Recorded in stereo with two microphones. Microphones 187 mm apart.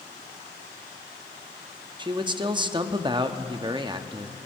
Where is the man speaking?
25° right (ahead or behind), 0.7 m.